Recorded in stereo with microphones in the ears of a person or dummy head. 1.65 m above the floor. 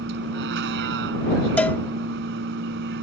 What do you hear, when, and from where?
0.0 s a vehicle: 60° right (ahead or behind)
1.6 s a cowbell: 10° left (ahead or behind)